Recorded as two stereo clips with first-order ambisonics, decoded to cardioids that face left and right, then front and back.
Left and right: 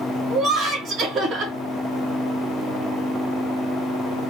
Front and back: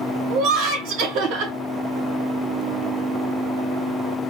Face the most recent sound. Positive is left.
turn(degrees=-150)